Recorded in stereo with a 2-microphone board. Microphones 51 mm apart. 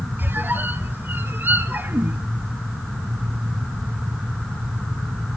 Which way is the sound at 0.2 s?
45° right (ahead or behind).